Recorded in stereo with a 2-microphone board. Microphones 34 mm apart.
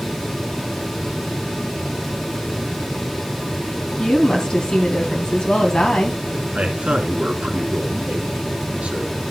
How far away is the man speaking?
About 2.5 m.